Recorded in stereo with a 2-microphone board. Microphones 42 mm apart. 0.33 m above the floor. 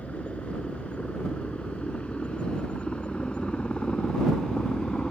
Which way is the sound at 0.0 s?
30° left (ahead or behind).